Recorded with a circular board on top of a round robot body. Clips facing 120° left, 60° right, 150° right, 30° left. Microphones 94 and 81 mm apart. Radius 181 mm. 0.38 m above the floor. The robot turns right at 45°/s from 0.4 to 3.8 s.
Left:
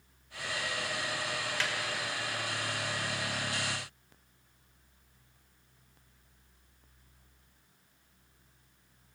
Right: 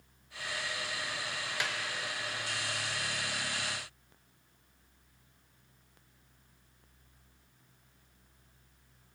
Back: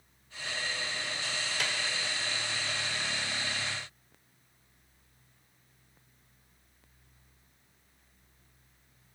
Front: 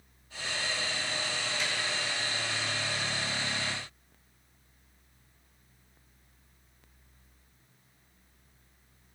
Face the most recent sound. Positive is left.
turn(degrees=-35)